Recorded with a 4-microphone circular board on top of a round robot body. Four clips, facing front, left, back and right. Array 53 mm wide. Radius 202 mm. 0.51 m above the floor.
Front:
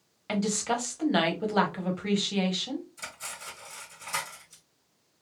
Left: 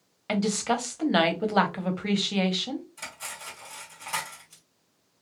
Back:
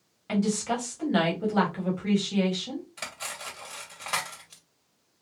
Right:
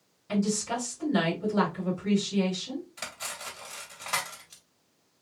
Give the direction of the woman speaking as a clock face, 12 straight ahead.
10 o'clock.